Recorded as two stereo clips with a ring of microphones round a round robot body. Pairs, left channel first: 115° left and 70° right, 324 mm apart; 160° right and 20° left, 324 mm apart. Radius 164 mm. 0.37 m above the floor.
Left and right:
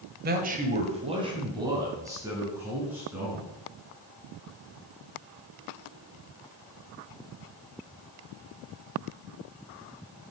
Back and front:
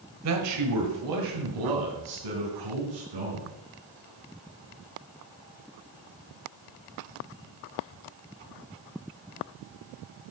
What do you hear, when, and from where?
0.2 s a man speaking: 10° right, 1.5 m; by 3.5 s 20° left, 4 m